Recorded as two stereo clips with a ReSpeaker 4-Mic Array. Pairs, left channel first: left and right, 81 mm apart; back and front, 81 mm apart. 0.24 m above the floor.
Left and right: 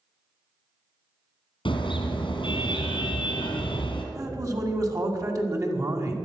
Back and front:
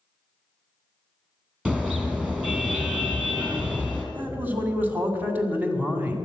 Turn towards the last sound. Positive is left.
turn(degrees=-60)